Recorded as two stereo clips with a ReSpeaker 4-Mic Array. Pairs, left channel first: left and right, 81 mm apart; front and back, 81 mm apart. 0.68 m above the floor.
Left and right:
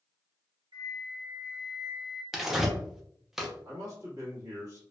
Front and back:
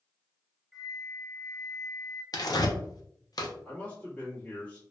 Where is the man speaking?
70° right, 1.7 m.